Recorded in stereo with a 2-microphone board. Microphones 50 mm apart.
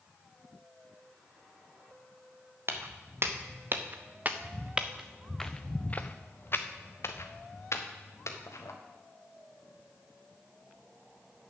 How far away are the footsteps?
About 1.7 m.